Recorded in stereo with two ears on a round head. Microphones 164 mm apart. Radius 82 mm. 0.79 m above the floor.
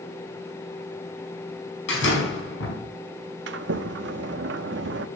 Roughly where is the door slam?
Left.